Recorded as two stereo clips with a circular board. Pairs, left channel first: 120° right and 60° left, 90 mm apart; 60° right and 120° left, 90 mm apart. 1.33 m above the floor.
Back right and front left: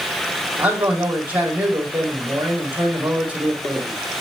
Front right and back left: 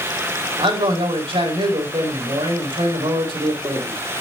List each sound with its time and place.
0.6 s a man speaking: 130° left, 4 m